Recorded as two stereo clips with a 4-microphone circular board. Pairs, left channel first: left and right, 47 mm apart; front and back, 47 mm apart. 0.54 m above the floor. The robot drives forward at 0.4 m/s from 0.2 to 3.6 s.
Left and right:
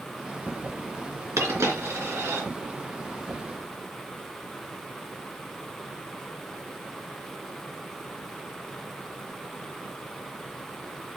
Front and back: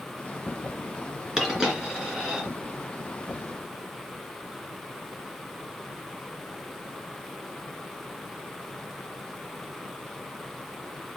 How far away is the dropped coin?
About 3 m.